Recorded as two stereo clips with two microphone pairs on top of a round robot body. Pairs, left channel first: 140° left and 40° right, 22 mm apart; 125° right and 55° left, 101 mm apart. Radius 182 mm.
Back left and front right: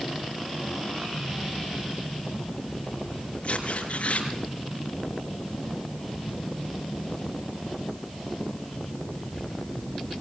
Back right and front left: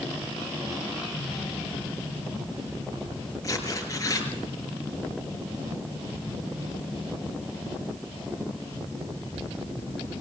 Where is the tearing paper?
Straight behind, 4 m.